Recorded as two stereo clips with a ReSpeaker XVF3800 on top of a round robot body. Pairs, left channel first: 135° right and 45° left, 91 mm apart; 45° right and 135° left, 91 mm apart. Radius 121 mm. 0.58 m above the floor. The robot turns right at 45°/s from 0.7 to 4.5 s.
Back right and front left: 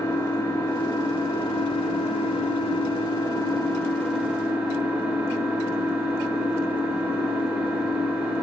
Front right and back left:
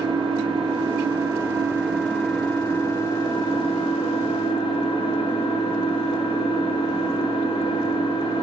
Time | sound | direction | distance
0.0 | an engine running | 160° left | 5 m